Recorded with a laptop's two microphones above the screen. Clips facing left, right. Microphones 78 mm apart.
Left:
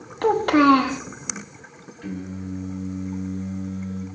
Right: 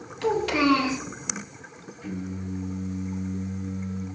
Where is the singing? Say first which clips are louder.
Left 2 dB; 60° left (ahead or behind), 1.3 m.